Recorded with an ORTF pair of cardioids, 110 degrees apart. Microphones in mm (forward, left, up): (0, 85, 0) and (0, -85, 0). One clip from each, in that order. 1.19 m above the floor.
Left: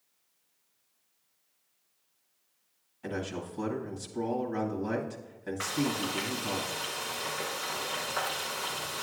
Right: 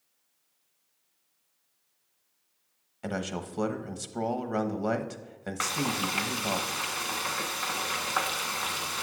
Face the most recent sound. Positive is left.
turn(degrees=-50)